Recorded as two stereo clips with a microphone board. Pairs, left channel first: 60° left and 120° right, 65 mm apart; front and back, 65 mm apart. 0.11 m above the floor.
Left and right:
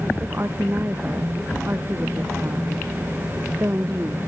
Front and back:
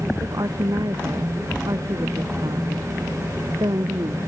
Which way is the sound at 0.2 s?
175° right.